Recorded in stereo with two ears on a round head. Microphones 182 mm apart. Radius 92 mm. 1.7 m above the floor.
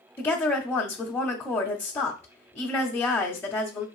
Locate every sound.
0.2 s a woman speaking: 10° left (ahead or behind), 0.6 m